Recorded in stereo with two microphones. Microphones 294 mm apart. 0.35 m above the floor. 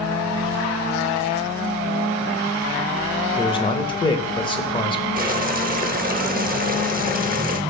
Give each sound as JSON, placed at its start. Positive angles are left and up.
{"t": 3.4, "sound": "a man speaking", "side_deg": 15, "distance_m": 0.8}
{"t": 5.2, "sound": "boiling", "side_deg": -30, "distance_m": 0.7}